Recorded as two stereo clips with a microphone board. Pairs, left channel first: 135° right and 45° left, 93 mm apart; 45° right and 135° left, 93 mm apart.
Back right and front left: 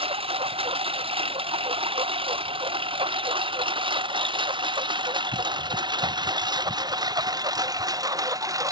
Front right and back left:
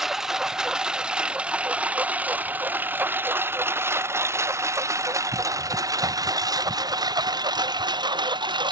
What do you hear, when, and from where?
0.0 s a lawn mower: 45° left; by 8.7 s 95° left